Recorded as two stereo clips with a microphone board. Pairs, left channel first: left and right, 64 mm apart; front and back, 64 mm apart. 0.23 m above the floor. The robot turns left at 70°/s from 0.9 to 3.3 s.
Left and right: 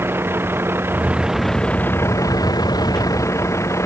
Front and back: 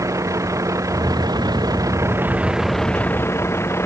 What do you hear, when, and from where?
0.0 s a vehicle: 145° right; by 3.9 s 50° left